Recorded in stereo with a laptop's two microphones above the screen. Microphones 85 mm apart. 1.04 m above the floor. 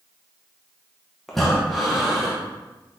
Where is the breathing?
Centre (ahead or behind), 0.8 m.